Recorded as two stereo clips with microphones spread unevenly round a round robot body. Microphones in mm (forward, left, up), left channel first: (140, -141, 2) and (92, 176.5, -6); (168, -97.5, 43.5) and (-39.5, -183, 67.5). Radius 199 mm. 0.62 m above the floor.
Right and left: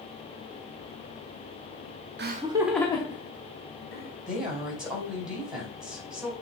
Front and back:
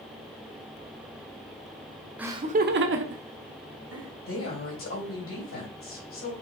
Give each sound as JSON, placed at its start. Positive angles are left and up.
{"t": 2.2, "sound": "laughter", "azimuth_deg": 110, "distance_m": 0.7}
{"t": 4.3, "sound": "a woman speaking", "azimuth_deg": 10, "distance_m": 4.5}